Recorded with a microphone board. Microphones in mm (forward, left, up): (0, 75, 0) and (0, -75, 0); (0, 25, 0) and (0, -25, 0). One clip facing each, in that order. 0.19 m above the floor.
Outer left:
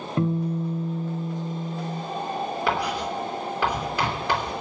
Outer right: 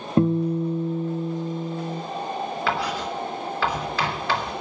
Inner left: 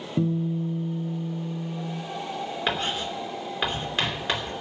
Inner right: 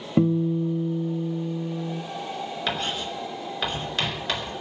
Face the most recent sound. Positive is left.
turn(degrees=15)  # may be behind; listen again after turning